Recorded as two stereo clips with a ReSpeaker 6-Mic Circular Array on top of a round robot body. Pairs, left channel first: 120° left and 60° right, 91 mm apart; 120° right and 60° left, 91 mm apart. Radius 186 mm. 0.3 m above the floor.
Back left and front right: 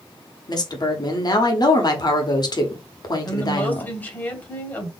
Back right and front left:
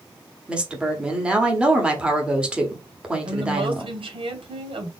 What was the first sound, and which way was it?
A woman speaking, 135° left.